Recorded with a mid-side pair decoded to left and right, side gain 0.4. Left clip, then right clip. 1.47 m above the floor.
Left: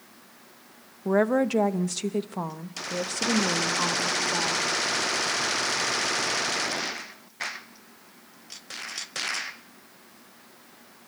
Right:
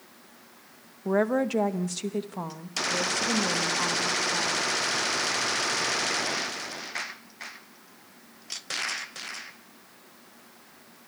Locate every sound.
1.1 s a woman speaking: 10° left, 1.6 m; by 4.7 s 25° left, 3.5 m